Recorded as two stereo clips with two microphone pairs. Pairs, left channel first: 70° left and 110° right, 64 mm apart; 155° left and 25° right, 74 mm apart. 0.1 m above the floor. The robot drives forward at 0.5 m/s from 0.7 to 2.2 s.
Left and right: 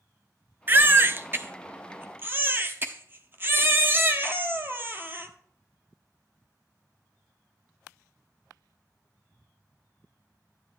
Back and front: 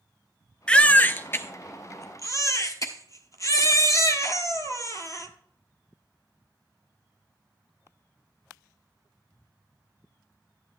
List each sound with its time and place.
0.7 s a baby crying: 135° right, 0.7 m; by 5.3 s 165° right, 1.2 m